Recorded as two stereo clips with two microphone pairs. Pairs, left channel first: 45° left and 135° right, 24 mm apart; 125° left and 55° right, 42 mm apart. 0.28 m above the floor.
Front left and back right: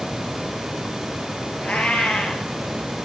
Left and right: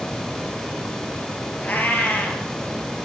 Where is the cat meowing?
70° left, 2.5 m.